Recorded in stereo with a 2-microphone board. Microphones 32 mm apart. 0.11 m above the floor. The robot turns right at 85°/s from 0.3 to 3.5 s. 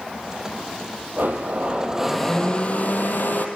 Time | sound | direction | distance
1.2 | a blender | 85° right | 2.5 m